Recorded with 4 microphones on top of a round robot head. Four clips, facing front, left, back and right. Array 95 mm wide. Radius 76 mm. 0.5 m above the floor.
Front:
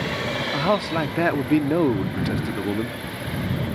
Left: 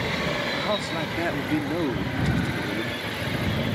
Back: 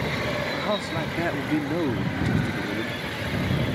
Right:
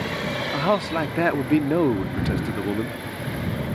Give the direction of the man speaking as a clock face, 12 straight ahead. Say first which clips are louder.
Right 5 dB, front 5 dB; 2 o'clock.